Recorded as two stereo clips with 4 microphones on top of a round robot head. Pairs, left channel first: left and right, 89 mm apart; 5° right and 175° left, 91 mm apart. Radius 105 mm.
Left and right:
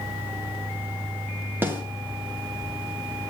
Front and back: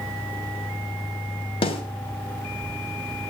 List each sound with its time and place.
1.6 s a snare drum: 20° right, 2 m